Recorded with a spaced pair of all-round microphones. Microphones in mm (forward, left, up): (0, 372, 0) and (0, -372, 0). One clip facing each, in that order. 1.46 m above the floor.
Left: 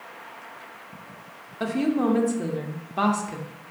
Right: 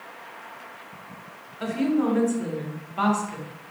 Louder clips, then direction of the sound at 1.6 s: Even; 70° left (ahead or behind).